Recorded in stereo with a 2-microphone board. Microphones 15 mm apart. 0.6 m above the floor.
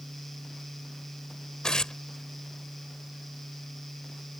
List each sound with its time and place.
1.6 s tearing paper: 60° left (ahead or behind)